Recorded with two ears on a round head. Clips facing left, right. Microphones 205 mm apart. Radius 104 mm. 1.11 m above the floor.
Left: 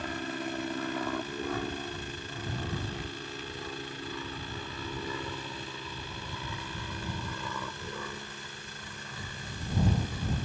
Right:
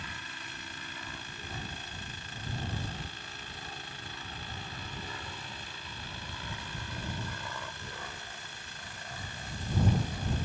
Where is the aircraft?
40° left (ahead or behind); by 10.5 s 75° left (ahead or behind).